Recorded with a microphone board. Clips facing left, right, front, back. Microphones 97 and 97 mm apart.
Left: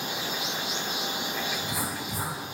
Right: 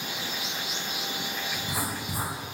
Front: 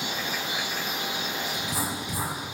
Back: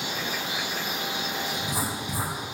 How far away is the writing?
About 0.9 m.